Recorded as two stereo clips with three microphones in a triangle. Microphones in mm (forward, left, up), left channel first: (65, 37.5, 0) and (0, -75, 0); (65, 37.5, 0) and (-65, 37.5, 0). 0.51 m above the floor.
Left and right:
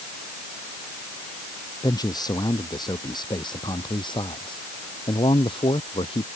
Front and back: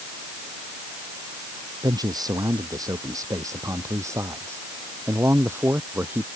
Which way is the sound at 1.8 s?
120° left.